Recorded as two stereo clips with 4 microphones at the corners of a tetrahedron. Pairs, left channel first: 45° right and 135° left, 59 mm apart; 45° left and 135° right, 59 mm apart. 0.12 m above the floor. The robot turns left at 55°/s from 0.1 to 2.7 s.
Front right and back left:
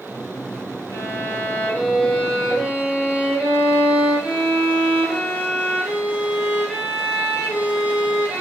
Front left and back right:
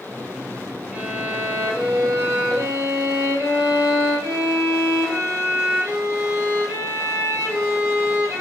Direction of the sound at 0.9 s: 55° right.